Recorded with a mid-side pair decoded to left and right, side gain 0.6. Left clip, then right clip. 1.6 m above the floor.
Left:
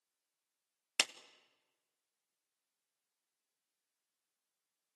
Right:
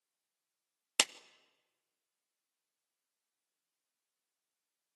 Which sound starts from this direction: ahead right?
A clap, at 1.0 s.